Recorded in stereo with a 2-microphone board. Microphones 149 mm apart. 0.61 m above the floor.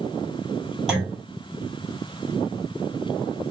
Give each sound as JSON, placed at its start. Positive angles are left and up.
{"t": 0.9, "sound": "a clunk", "side_deg": -5, "distance_m": 2.0}